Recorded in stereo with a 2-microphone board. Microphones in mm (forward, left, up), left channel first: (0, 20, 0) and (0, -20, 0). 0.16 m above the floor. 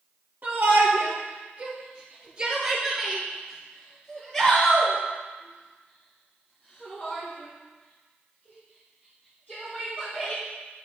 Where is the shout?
50° right (ahead or behind), 2.5 m; by 10.4 s 40° left (ahead or behind), 6 m.